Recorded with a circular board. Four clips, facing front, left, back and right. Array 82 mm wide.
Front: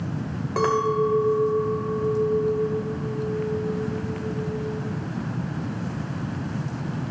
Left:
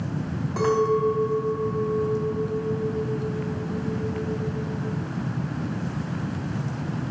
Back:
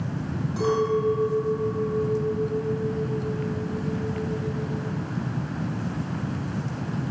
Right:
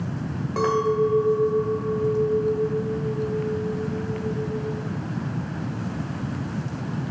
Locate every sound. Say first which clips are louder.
0.6 s a clink: even, front 2 dB; 15° right, 1.8 m